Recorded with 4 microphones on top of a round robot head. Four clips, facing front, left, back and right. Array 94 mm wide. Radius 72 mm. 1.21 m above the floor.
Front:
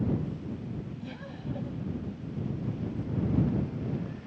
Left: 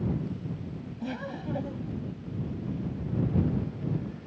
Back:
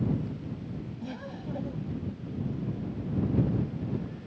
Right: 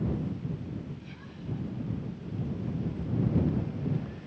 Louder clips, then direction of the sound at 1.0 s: Left 9 dB, back 2 dB; 100° left.